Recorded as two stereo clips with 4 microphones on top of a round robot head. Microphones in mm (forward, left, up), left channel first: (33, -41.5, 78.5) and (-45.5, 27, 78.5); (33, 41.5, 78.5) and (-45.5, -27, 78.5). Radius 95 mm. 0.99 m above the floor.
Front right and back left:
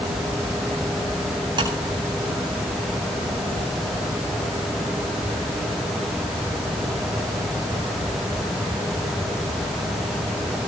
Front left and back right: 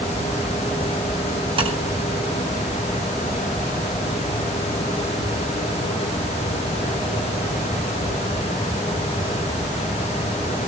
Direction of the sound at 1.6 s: 175° right.